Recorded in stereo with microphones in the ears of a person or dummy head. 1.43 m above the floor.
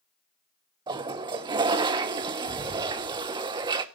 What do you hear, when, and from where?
0.9 s a toilet flushing: 25° right (ahead or behind), 1.0 m